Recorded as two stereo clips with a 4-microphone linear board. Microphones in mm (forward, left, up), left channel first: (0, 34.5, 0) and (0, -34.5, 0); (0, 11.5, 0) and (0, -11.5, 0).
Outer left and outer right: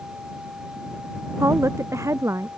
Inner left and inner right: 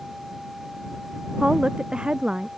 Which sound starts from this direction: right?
A woman speaking, at 1.4 s.